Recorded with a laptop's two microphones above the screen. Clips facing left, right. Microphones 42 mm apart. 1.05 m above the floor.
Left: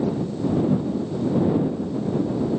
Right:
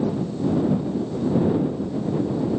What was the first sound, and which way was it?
Only background noise.